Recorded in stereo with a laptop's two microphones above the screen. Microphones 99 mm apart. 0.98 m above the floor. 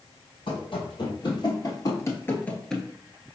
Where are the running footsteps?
60° left (ahead or behind), 1.9 m; by 2.9 s centre (ahead or behind), 0.9 m.